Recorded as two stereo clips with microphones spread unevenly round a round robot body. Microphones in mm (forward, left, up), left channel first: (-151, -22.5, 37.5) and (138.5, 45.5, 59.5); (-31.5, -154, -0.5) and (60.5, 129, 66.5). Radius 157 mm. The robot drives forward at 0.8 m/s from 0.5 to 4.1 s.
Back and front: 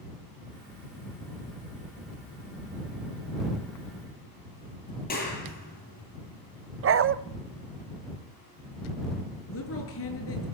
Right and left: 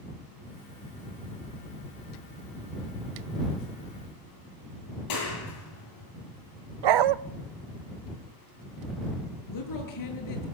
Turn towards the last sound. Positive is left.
turn(degrees=-120)